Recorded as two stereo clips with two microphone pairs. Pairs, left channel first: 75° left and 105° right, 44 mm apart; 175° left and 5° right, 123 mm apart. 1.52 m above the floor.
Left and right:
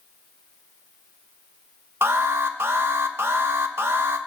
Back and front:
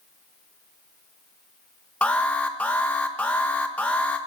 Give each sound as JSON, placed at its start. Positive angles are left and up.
{"t": 2.0, "sound": "an alarm", "azimuth_deg": -105, "distance_m": 1.2}